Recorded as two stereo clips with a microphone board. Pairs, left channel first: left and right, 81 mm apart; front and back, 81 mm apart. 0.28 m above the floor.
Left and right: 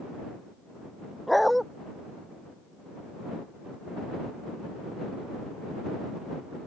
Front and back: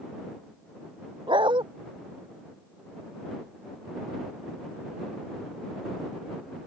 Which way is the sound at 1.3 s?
Straight behind.